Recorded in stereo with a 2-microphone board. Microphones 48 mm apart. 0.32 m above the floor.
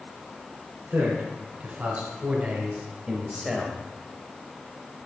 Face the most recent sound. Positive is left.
turn(degrees=10)  # may be behind; listen again after turning